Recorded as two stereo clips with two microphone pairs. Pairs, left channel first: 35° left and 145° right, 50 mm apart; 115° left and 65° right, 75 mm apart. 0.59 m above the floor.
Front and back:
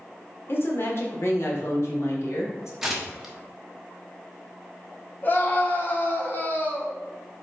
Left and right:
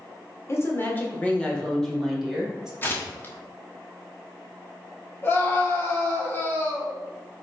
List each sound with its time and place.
0.5 s a woman speaking: 70° left, 1.4 m; by 2.7 s 20° left, 1.9 m
2.8 s tearing paper: 135° left, 1.1 m
5.2 s a scream: 65° left, 1.7 m